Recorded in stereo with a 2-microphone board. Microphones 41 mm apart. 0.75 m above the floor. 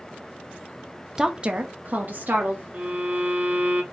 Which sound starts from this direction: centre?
A woman speaking, at 1.2 s.